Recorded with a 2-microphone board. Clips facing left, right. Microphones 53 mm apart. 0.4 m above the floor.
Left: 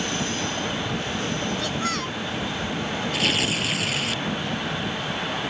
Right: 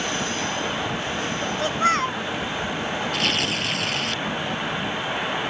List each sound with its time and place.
1.6 s a child speaking: 35° right (ahead or behind)
3.1 s tearing paper: 5° left (ahead or behind)